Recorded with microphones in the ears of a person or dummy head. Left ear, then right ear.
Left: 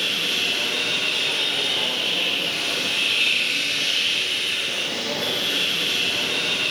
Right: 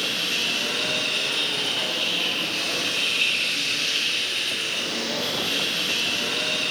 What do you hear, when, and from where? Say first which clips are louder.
0.0 s a machine running: left 2 dB; 35° left (ahead or behind), 1.9 m